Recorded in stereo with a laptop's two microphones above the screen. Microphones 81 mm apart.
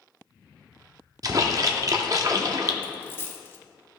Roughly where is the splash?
Right.